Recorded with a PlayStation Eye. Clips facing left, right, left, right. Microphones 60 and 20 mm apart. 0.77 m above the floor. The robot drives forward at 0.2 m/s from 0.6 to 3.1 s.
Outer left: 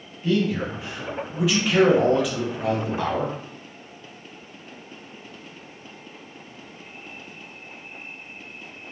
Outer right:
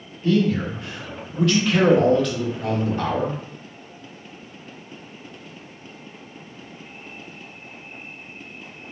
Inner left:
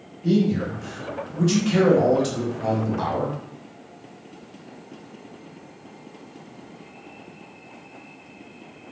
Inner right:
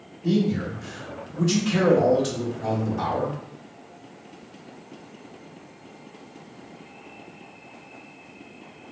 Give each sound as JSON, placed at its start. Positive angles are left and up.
{"t": 0.2, "sound": "a man speaking", "side_deg": 5, "distance_m": 1.1}